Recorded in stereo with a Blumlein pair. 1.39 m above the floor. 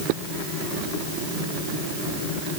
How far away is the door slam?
I don't hear a door slam.